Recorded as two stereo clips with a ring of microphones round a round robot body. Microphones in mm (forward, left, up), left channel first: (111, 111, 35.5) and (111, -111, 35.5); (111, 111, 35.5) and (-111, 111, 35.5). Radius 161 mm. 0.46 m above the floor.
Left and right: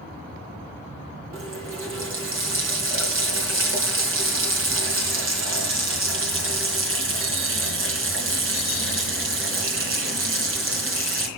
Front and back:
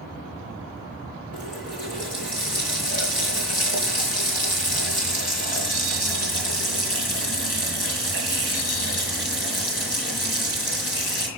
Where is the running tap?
65° right, 4 m.